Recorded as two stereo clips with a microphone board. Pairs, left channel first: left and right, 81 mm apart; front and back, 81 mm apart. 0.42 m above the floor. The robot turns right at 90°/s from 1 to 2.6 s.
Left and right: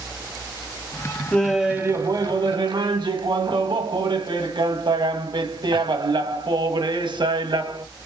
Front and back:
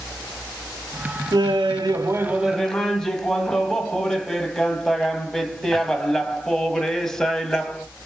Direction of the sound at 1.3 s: 160° left.